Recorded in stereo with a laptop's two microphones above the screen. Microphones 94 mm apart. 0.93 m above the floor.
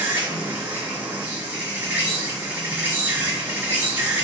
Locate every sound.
0.0 s an insect: 25° right (ahead or behind), 1.5 m